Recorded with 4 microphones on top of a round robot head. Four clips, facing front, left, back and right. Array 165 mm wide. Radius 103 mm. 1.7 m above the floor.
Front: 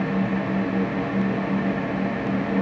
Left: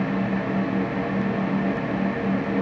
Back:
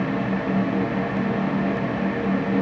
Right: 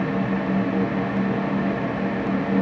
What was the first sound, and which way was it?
Only background noise.